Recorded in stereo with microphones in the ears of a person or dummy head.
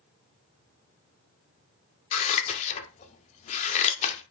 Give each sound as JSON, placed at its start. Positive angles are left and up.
{"t": 2.1, "sound": "scissors", "side_deg": 35, "distance_m": 0.6}